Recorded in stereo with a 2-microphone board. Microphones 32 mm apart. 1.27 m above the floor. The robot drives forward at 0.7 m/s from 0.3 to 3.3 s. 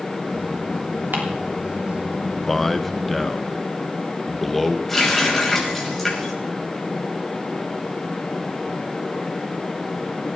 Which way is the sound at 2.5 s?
10° left (ahead or behind).